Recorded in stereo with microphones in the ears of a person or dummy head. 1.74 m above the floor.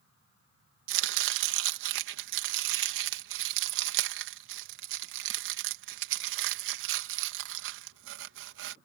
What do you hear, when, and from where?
0.9 s chopping: 75° right (ahead or behind)